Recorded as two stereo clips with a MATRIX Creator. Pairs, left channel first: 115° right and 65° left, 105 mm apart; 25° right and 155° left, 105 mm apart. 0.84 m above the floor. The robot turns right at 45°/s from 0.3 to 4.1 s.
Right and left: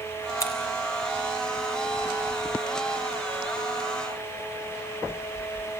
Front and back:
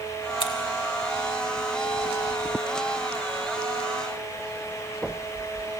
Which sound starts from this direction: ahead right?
Scissors, at 0.4 s.